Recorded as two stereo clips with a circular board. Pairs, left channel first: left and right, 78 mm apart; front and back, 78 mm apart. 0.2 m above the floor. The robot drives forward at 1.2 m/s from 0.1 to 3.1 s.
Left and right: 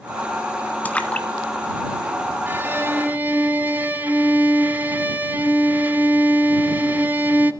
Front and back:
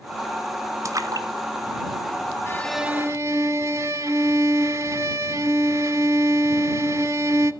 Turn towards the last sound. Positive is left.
turn(degrees=-150)